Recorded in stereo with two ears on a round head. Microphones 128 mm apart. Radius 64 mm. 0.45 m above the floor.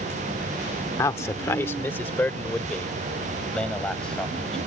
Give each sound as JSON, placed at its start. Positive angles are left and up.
{"t": 1.0, "sound": "a man speaking", "side_deg": 20}